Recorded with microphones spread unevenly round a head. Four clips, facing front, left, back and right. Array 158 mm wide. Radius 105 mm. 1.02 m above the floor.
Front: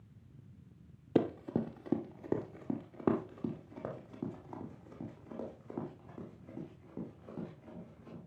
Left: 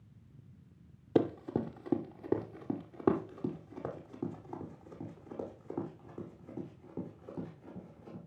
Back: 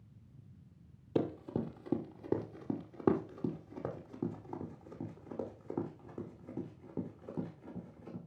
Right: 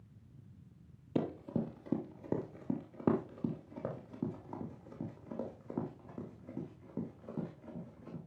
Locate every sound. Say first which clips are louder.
1.1 s running footsteps: left 5 dB, front 3 dB; 160° right, 1.0 m; by 8.2 s 145° right, 4.5 m